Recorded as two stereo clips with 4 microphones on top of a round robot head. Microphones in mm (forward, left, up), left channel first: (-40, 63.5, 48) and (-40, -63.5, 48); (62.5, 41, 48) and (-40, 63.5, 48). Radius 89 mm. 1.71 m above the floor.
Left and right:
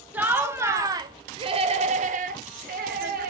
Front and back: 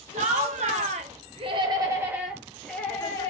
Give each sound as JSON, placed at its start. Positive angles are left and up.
{"t": 0.1, "sound": "laughter", "azimuth_deg": -170, "distance_m": 1.3}